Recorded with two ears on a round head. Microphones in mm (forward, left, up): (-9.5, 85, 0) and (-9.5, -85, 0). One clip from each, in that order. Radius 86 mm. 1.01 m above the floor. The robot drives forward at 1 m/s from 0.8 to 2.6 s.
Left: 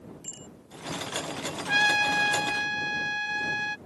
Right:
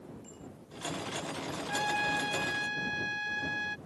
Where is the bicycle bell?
65° left (ahead or behind).